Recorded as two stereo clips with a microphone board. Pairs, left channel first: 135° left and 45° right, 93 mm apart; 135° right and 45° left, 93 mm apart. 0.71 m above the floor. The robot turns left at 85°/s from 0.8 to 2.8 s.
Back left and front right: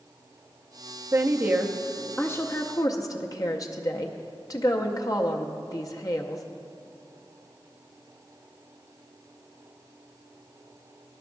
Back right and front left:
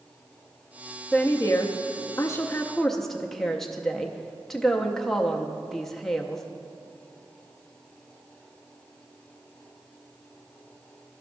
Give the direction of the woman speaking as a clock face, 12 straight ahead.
3 o'clock.